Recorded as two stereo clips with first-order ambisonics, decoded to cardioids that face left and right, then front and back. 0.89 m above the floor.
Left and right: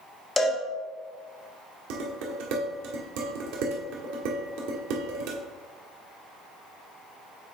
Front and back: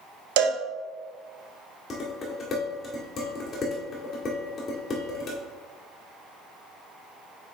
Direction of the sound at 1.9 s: 70° right.